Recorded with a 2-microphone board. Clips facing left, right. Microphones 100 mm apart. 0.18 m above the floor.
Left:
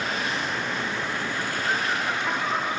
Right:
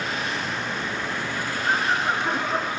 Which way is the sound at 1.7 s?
40° right (ahead or behind).